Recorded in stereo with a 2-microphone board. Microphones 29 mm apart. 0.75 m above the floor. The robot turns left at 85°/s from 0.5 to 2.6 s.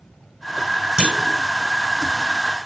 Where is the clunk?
25° right (ahead or behind), 4.5 m; by 1.4 s 55° right (ahead or behind), 4.5 m.